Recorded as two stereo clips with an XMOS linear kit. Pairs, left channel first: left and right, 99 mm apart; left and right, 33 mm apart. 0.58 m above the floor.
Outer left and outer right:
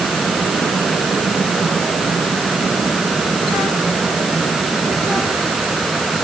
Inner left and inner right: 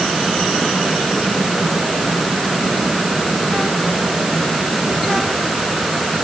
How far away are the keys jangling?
I don't hear keys jangling.